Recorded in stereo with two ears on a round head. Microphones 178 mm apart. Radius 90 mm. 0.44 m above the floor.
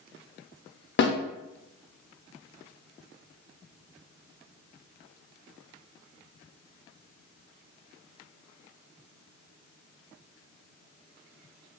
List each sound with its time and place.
1.0 s a snare drum: 60° left (ahead or behind), 0.6 m